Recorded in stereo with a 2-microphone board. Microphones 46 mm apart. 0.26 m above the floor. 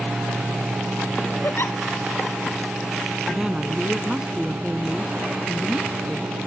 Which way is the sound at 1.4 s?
60° left (ahead or behind).